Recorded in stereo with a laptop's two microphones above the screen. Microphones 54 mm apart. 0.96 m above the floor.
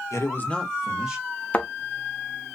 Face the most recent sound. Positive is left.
turn(degrees=25)  # may be behind; listen again after turning